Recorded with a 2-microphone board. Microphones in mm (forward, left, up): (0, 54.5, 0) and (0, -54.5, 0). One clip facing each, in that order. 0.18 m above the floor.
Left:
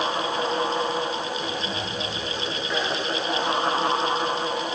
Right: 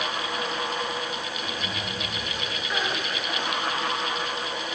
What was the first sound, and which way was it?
Only background noise.